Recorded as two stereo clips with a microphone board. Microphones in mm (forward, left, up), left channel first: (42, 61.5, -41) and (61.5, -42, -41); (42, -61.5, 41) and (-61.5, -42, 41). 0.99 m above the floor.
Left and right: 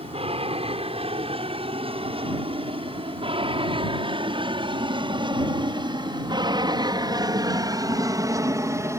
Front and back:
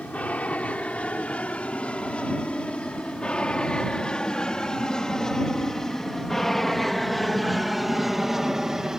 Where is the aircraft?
90° right; by 9.0 s 110° right.